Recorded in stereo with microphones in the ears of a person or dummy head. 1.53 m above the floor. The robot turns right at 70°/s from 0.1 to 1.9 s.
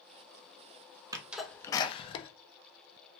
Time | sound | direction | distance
1.1 | a sneeze | 20° right (ahead or behind) | 0.5 m